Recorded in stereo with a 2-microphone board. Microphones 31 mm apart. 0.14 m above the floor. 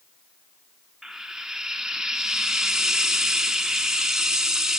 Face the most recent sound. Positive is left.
turn(degrees=-20)  # may be behind; listen again after turning